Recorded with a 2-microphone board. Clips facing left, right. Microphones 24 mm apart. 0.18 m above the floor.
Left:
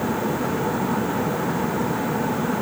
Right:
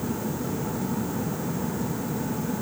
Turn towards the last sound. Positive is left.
No sound to turn to.